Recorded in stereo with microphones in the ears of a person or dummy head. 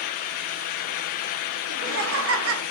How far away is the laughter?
About 0.9 m.